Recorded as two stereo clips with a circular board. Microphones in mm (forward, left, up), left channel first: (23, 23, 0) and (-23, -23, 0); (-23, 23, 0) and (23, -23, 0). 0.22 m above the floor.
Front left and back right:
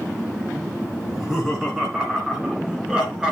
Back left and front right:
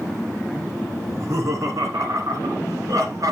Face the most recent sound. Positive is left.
turn(degrees=-60)